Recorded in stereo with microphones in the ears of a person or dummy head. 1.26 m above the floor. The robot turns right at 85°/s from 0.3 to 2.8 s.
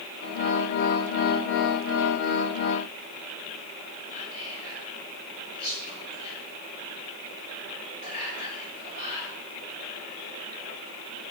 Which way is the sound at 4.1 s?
45° left (ahead or behind).